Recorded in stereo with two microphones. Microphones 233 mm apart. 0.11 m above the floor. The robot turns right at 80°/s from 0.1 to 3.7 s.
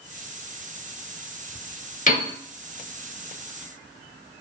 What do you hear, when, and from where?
2.1 s a piano: 35° left (ahead or behind), 0.9 m; by 2.3 s 30° left (ahead or behind), 0.9 m